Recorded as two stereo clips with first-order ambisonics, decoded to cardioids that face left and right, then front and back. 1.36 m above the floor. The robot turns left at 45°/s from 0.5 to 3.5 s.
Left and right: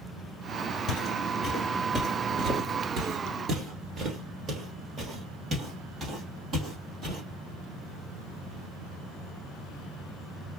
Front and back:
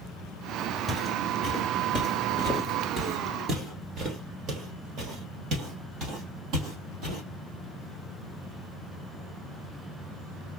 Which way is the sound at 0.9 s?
75° left.